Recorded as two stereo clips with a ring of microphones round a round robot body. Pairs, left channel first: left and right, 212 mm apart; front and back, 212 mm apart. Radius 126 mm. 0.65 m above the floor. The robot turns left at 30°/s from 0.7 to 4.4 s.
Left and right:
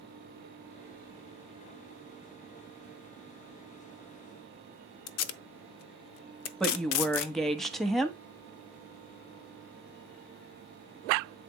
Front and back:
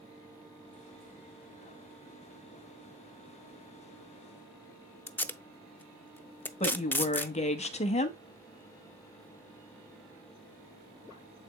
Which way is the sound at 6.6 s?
5° left.